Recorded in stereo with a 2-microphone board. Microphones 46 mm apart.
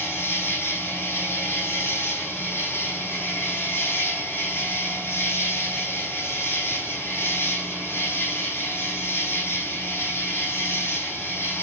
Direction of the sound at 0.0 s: 60° left (ahead or behind).